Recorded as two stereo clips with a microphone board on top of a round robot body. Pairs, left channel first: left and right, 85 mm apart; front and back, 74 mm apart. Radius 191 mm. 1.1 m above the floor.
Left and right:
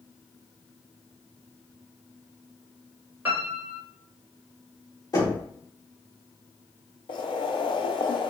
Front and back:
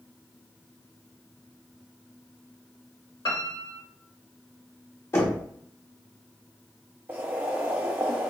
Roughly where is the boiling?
Behind left.